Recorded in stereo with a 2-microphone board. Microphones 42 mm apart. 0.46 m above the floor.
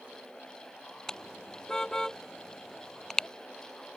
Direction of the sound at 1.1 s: 15° left (ahead or behind).